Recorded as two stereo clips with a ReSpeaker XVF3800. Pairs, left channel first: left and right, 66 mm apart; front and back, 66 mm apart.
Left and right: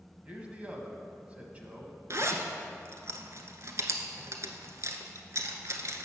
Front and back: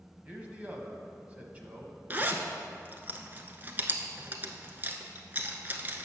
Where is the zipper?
120° right, 0.8 m.